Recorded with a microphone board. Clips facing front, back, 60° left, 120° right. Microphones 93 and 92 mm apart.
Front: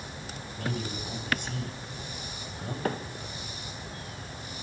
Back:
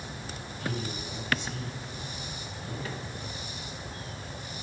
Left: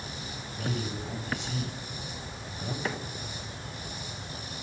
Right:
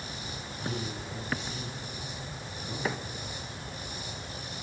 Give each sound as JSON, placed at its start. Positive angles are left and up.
{"t": 0.6, "sound": "a man speaking", "azimuth_deg": 40, "distance_m": 7.0}
{"t": 2.9, "sound": "a microwave", "azimuth_deg": -35, "distance_m": 1.3}